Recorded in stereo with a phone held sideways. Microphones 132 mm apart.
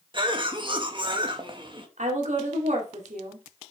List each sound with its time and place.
0.1 s a cough: 40° right (ahead or behind), 1.7 m
2.0 s a woman speaking: 65° right (ahead or behind), 2.5 m